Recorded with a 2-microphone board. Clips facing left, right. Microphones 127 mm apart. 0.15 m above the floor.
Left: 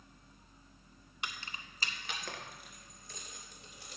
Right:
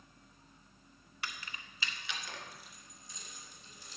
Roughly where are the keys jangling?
Left.